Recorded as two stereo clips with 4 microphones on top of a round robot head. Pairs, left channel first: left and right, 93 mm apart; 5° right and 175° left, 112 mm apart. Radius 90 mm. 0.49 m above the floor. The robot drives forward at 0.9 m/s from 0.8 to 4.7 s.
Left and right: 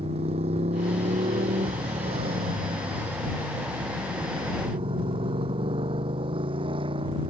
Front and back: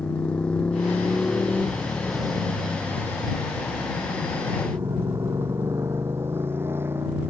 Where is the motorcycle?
85° right; by 7.3 s 110° right.